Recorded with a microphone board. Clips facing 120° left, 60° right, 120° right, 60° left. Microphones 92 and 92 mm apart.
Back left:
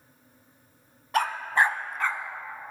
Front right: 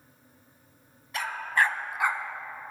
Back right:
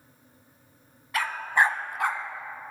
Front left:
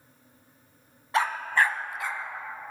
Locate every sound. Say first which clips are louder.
1.1 s a dog barking: back left 3 dB, even; 120° left, 0.8 m; by 2.2 s 125° right, 1.1 m